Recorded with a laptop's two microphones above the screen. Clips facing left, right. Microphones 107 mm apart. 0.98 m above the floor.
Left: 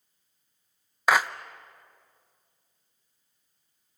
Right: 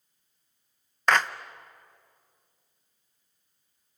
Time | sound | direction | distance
1.1 | a clap | 10° left (ahead or behind) | 0.6 m